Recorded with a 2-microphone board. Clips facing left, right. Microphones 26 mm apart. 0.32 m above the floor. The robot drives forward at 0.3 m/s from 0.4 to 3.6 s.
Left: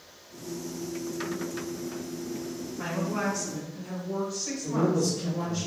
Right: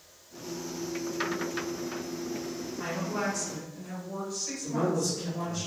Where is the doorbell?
No doorbell in this recording.